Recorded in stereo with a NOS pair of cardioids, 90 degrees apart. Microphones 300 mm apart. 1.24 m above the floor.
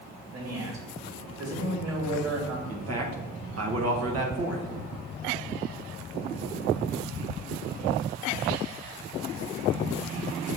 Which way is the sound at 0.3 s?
50° right.